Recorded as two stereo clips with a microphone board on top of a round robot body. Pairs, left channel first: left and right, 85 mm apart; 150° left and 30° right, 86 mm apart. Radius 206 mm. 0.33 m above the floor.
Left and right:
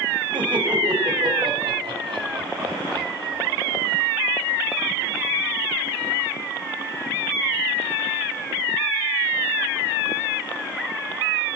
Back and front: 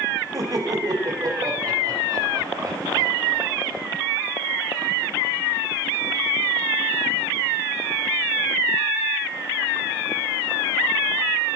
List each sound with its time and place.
0.3 s laughter: 75° right, 3.5 m